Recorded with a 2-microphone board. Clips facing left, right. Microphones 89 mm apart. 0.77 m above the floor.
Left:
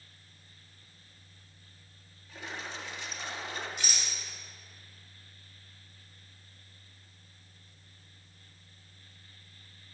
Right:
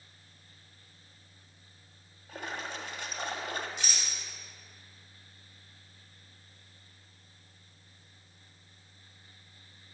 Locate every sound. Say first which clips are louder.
2.3 s a splash: right 3 dB; 55° right (ahead or behind), 0.8 m
3.8 s a rattle: even; 20° right (ahead or behind), 2.5 m